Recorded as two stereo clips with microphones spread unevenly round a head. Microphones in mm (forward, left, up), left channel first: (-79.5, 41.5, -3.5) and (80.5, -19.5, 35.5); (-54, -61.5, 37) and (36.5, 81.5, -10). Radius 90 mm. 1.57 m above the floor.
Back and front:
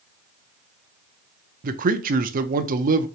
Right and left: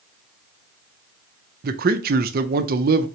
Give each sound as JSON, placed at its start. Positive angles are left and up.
{"t": 1.6, "sound": "a man speaking", "azimuth_deg": 25, "distance_m": 0.6}